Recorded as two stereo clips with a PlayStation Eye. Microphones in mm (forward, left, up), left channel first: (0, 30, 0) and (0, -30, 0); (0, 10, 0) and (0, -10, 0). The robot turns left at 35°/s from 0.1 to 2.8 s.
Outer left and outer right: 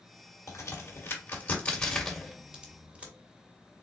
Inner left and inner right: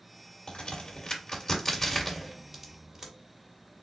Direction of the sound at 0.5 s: 60° left (ahead or behind).